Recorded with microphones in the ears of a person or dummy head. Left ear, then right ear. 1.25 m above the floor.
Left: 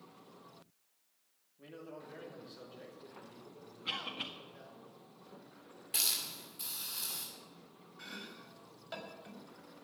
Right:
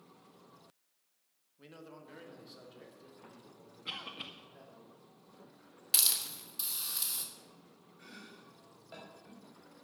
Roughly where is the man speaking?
Right.